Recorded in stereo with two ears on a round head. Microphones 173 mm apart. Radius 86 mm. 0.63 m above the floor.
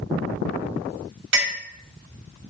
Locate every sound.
1.3 s a clink: 65° right (ahead or behind), 1.9 m